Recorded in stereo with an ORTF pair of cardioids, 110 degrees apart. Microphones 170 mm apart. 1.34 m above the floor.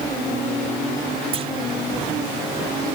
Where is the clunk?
35° right.